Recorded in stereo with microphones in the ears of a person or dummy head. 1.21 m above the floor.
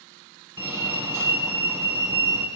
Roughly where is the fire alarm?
Centre.